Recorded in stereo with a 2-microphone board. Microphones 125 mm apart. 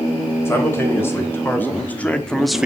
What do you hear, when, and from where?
0.5 s a man speaking: 20° left (ahead or behind), 3.5 m; by 2.7 s 5° right (ahead or behind), 0.7 m